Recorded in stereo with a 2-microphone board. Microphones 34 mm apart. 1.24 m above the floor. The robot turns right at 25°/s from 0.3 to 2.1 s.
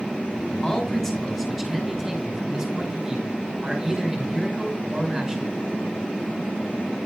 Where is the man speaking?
155° left, 6 m; by 5.5 s 170° right, 6 m.